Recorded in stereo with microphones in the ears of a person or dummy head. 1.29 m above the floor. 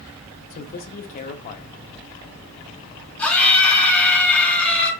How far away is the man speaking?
About 0.6 m.